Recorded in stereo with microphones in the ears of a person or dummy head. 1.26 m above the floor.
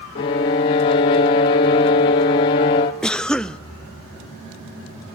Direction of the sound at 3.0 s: Centre (ahead or behind).